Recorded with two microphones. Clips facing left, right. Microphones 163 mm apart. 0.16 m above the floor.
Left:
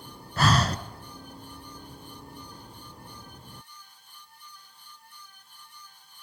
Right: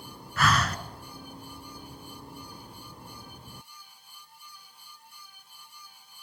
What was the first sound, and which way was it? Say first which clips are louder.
Breathing: left 2 dB; 30° left (ahead or behind).